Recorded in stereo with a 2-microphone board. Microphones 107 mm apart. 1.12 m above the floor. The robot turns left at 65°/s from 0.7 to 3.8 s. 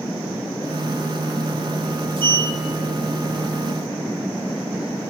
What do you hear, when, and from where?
2.2 s a sliding door: 50° right (ahead or behind), 0.6 m; by 3.5 s centre (ahead or behind), 0.6 m